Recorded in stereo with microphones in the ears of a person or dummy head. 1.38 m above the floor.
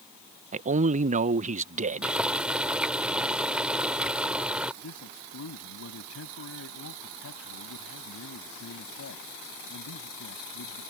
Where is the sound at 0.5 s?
40° right (ahead or behind).